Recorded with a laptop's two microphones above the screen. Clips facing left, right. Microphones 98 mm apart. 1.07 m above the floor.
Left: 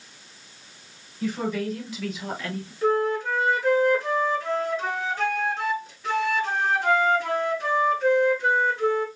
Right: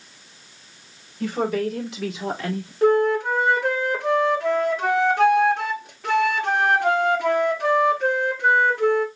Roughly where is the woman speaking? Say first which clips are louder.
Right 4 dB; right.